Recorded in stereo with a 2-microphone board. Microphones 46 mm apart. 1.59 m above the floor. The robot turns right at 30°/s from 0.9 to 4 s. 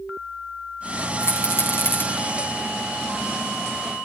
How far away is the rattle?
About 4 m.